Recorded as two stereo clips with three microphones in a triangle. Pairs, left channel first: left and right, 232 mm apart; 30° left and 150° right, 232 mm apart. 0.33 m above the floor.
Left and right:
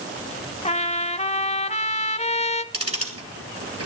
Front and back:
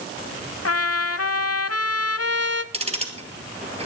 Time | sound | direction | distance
0.7 | a trumpet | 30° left | 0.6 m
2.7 | ticking | 85° right | 1.8 m